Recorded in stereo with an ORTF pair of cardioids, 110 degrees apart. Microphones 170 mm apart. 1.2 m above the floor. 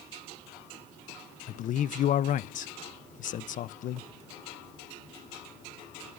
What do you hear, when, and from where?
1.5 s a man speaking: 50° left, 0.7 m